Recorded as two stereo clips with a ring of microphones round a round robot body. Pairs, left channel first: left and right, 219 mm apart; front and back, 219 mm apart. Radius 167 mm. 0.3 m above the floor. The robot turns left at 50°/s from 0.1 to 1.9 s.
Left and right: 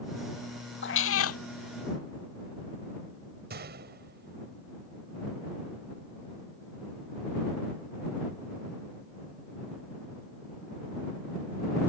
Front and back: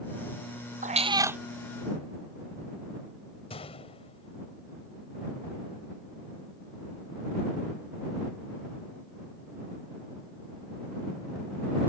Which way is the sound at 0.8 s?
125° left.